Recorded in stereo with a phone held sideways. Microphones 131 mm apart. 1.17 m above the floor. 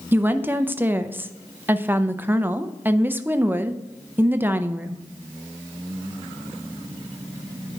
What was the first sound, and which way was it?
A woman speaking, 15° right (ahead or behind).